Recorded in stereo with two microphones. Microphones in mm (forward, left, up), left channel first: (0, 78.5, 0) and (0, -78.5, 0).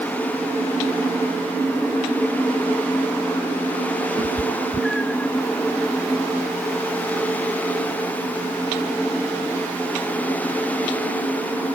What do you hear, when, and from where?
4.2 s a cat meowing: 35° right (ahead or behind); by 5.3 s 10° left (ahead or behind)